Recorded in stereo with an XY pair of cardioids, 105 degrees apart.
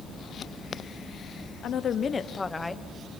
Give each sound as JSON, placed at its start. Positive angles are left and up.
{"t": 1.6, "sound": "a woman speaking", "azimuth_deg": 65, "distance_m": 1.2}